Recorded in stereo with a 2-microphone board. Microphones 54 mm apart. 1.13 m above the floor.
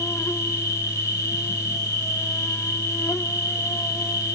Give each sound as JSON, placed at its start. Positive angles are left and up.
{"t": 0.0, "sound": "an insect", "side_deg": 70, "distance_m": 0.7}